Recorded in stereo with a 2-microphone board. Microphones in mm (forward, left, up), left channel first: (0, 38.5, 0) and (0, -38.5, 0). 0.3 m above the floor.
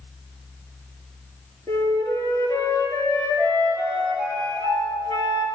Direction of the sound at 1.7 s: 60° left (ahead or behind).